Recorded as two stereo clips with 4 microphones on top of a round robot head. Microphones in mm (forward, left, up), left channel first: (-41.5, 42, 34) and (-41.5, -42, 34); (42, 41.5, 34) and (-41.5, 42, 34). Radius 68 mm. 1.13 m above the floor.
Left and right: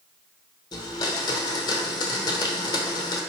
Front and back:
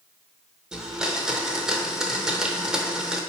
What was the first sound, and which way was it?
A blender, 100° left.